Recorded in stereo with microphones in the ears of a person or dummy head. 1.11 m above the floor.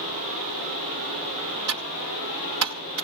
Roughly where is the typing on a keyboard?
Right.